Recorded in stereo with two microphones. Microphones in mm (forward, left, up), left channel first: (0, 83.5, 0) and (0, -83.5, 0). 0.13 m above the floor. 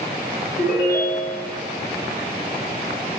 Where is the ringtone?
55° left (ahead or behind), 3.5 m.